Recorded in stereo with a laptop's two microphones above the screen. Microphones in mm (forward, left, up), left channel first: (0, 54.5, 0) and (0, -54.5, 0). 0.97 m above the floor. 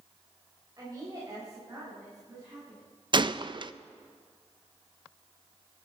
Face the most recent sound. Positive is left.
turn(degrees=-45)  # may be behind; listen again after turning